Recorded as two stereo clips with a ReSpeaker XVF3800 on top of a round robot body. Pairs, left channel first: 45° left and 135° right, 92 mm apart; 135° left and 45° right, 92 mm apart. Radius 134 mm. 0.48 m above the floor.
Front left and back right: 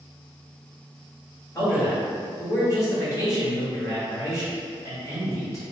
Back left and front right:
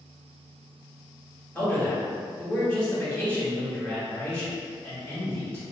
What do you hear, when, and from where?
1.6 s a man speaking: 65° left, 1.6 m